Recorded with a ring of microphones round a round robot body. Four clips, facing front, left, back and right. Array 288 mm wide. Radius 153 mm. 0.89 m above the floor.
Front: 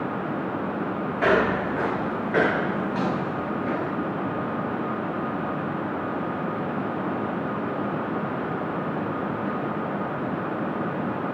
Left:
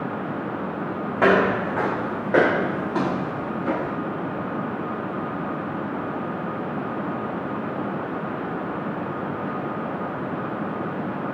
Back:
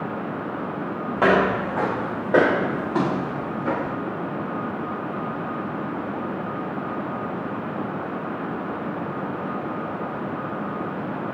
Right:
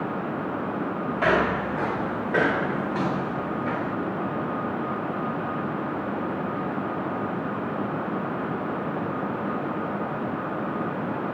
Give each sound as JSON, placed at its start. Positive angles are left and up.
{"t": 1.2, "sound": "footsteps", "azimuth_deg": 140, "distance_m": 5.5}